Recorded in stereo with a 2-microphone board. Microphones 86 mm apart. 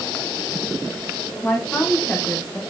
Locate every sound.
1.4 s a woman speaking: 15° left (ahead or behind), 2 m